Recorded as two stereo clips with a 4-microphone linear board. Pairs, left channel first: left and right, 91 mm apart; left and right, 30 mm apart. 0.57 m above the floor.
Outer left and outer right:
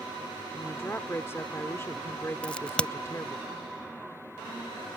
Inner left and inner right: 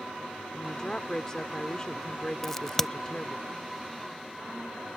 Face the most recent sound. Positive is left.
turn(degrees=10)  # may be behind; listen again after turning